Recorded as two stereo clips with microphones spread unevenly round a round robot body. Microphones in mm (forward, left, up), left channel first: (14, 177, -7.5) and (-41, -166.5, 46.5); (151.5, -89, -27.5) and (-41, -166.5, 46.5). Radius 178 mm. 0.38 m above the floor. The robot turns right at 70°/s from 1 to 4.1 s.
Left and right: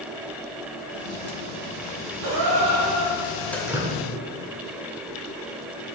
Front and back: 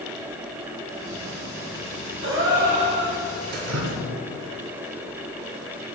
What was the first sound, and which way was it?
A gasp, 135° right.